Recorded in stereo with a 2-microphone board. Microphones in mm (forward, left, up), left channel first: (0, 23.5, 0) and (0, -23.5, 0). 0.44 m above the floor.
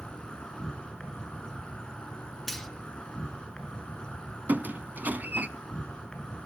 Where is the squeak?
35° right (ahead or behind), 0.7 m.